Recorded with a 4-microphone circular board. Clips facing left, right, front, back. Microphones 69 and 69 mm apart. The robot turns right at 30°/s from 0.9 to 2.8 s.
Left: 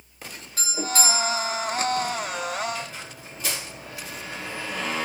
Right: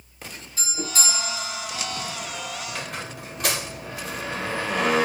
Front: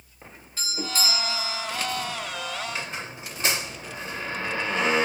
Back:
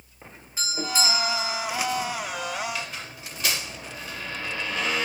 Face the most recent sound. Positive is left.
turn(degrees=-65)